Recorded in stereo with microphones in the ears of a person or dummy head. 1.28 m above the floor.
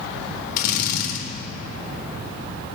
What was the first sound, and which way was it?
A drill, 50° left (ahead or behind).